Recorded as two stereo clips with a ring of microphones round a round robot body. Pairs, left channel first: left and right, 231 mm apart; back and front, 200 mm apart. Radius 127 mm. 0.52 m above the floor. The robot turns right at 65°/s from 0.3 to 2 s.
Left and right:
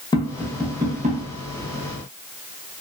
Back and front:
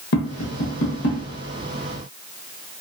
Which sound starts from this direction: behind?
Tapping, at 0.1 s.